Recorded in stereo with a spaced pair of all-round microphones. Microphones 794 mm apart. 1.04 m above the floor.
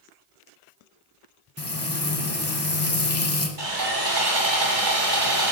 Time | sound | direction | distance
1.6 | frying | 20° left (ahead or behind) | 0.9 m
3.6 | sawing | 75° right (ahead or behind) | 1.9 m